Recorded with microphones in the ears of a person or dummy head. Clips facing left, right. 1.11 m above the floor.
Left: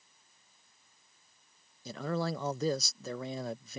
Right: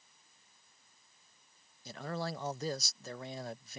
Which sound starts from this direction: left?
A man speaking, at 1.9 s.